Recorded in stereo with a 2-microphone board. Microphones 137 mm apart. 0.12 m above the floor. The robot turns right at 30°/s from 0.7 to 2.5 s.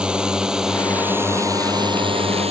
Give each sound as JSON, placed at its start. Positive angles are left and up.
{"t": 0.0, "sound": "a drone", "side_deg": -5}